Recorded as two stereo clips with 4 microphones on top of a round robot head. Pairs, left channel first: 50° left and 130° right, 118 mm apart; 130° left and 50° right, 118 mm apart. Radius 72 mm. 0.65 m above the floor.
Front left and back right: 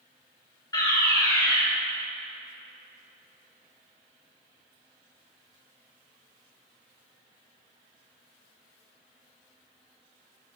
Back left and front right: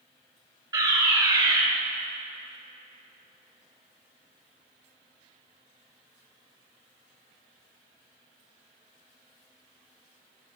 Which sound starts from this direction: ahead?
A fire alarm, at 0.7 s.